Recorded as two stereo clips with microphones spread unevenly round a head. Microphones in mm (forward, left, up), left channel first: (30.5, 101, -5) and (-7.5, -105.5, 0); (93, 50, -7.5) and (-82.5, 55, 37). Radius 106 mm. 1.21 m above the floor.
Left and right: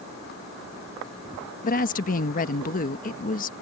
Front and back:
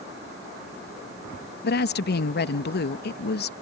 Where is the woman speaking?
25° left.